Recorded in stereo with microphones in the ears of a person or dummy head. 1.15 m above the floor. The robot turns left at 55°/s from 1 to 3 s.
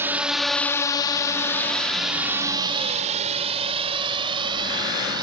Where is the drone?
10° right (ahead or behind); by 5.2 s 20° right (ahead or behind).